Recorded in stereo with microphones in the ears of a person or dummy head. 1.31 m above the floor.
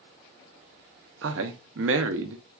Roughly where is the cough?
No cough in this recording.